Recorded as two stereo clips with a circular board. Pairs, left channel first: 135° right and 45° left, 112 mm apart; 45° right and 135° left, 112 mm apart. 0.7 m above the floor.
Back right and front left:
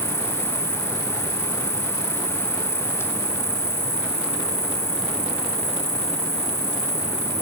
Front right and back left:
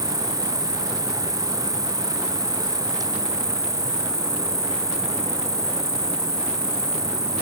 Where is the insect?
160° right.